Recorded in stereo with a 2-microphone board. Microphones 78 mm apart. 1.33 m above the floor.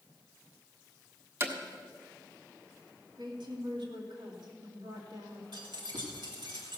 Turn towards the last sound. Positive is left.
turn(degrees=-75)  # may be behind; listen again after turning